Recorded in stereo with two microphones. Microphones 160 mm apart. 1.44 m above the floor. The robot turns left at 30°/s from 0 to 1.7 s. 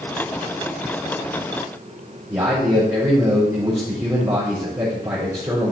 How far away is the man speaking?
About 3.5 m.